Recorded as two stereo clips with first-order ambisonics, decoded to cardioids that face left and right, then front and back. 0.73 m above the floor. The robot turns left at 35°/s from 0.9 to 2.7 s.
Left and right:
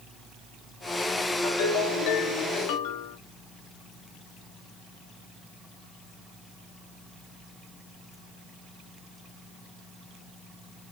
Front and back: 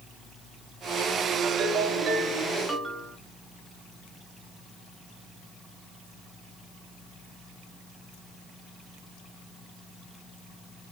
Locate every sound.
1.4 s a ringtone: 140° left, 3 m; by 3.2 s 95° left, 3 m